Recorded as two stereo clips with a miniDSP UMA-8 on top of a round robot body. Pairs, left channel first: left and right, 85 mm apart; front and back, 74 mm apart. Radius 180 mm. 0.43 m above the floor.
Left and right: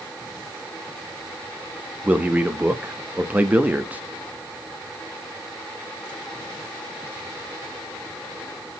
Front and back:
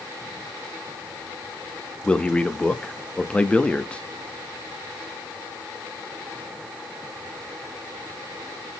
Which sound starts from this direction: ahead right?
A man speaking, at 2.0 s.